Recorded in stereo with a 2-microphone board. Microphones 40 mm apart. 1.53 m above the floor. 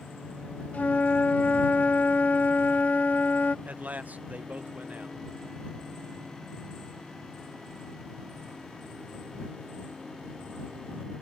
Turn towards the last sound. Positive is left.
turn(degrees=-45)  # may be behind; listen again after turning